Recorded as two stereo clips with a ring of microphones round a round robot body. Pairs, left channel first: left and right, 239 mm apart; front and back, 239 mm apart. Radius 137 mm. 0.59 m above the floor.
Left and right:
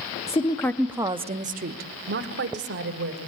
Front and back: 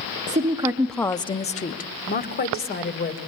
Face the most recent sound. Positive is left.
turn(degrees=-45)